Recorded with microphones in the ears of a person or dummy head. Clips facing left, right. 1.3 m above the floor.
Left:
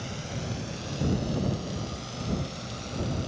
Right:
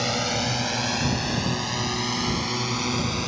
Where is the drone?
85° right.